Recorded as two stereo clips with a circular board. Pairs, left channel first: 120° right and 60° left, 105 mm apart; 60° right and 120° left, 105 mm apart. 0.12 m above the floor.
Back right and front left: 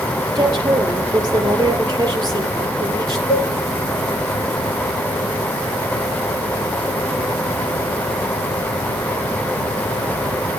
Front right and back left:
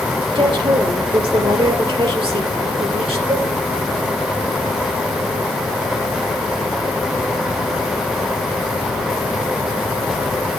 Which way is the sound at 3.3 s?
Straight behind.